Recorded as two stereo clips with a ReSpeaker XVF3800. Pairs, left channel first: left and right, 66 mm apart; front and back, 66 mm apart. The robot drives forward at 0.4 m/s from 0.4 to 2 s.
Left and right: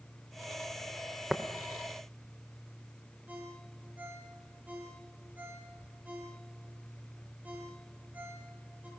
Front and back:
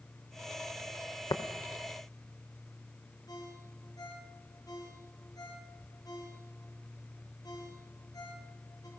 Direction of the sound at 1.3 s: Straight ahead.